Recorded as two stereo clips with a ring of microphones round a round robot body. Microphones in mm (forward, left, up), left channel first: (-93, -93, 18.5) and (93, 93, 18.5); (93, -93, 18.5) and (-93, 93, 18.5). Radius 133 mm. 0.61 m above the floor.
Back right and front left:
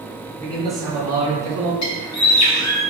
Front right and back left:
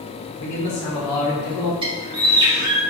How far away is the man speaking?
About 1.6 m.